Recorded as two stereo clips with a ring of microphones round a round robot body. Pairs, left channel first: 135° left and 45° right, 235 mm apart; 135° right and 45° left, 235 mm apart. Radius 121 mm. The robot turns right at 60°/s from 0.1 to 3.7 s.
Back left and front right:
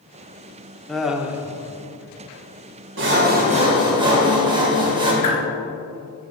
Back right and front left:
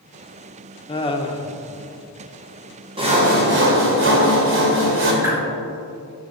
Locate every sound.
0.9 s laughter: 140° right, 0.8 m; by 1.5 s 105° right, 0.8 m
3.0 s sawing: 20° right, 1.8 m; by 5.1 s 20° left, 1.8 m
5.2 s a whoosh: 125° left, 2.5 m